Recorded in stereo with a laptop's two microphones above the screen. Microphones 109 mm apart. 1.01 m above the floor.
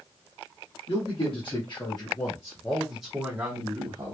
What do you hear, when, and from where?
0.9 s a man speaking: 55° left (ahead or behind), 1.5 m; by 4.2 s 45° right (ahead or behind), 1.0 m